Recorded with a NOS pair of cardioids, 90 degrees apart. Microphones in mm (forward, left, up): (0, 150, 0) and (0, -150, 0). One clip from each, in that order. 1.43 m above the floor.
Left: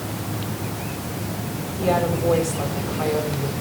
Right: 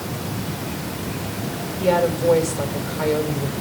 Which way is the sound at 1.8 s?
10° right.